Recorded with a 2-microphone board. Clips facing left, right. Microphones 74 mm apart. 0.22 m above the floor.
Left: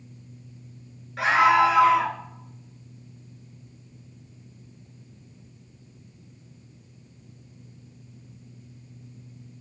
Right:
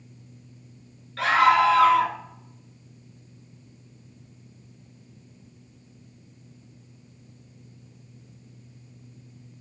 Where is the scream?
15° left (ahead or behind), 2.5 m.